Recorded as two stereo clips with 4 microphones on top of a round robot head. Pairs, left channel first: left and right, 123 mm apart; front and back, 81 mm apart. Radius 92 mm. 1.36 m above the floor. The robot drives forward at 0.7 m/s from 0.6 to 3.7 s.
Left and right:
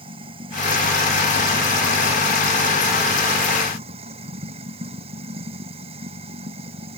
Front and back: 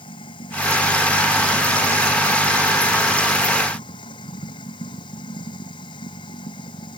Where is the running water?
40° right.